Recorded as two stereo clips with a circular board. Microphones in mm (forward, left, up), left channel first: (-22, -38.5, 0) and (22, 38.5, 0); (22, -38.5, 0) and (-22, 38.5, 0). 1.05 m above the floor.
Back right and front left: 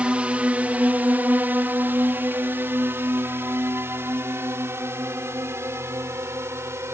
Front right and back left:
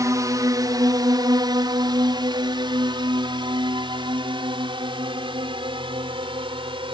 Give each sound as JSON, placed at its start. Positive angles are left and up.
{"t": 0.0, "sound": "a drone", "azimuth_deg": 130}